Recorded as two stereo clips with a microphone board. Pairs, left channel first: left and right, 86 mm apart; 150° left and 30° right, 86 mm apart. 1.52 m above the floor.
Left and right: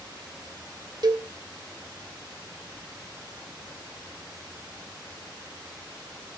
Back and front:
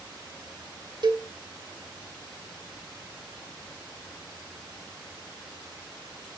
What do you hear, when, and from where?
1.0 s a cowbell: 60° right, 2 m